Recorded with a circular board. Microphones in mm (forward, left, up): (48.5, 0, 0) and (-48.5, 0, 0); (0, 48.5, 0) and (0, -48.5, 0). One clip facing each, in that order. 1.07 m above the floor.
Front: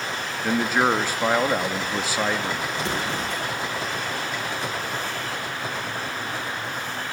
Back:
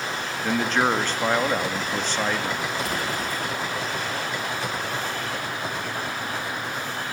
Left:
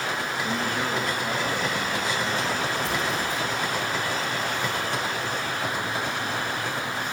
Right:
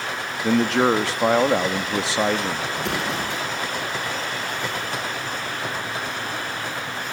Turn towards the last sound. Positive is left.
turn(degrees=-65)